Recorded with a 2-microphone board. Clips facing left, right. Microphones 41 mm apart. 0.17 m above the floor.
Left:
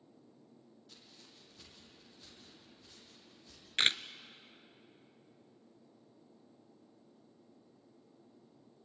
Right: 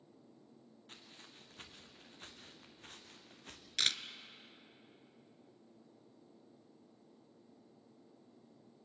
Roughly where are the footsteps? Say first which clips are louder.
Right 5 dB; right.